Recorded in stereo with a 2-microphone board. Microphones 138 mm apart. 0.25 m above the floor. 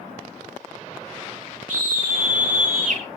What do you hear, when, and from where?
1.7 s a scream: 60° right (ahead or behind), 5 m